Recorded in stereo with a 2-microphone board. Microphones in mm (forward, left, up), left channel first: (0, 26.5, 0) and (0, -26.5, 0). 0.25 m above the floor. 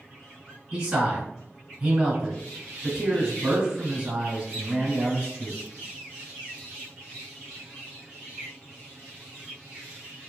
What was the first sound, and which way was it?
A man speaking, 20° right (ahead or behind).